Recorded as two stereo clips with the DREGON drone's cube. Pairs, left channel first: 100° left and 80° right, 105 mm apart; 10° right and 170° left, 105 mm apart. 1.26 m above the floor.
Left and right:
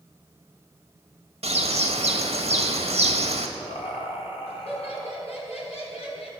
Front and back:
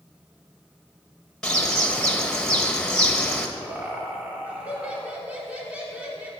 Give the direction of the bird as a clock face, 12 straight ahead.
3 o'clock.